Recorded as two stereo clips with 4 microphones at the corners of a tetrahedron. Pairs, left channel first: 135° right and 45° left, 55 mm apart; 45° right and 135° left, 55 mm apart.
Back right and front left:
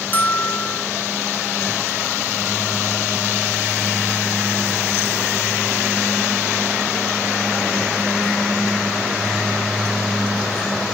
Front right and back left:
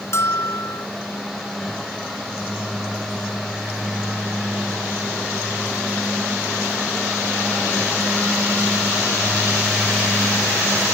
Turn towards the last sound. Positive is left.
turn(degrees=-80)